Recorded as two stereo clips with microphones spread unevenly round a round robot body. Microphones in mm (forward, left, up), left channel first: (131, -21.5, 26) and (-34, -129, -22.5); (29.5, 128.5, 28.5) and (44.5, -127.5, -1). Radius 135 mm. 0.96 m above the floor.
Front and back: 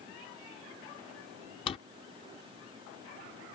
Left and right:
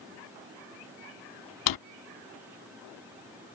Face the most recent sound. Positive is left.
turn(degrees=100)